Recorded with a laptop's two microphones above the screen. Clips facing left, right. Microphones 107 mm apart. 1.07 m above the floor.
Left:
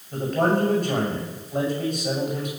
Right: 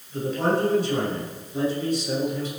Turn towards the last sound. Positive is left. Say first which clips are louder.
# left 2 dB
turn(degrees=70)  # may be behind; listen again after turning